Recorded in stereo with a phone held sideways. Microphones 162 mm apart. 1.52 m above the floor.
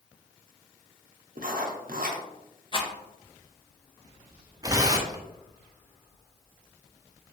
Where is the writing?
65° right (ahead or behind), 0.6 m.